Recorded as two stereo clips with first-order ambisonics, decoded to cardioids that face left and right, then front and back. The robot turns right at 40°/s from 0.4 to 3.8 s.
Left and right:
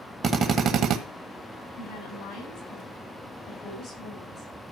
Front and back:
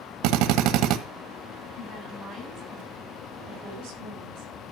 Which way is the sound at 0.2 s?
155° right.